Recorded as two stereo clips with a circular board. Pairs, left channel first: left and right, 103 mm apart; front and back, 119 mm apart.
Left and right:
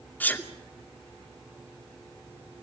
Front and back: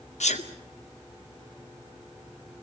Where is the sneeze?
15° left, 2 m.